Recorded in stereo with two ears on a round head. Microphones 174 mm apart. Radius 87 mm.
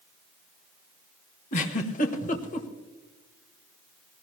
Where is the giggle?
40° left (ahead or behind), 1.4 m.